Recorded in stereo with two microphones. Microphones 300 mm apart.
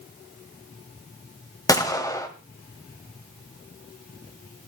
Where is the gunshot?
10° left (ahead or behind), 2 m.